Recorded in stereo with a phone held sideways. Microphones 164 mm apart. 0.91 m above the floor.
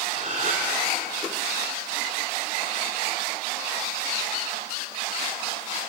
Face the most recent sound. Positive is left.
turn(degrees=-50)  # may be behind; listen again after turning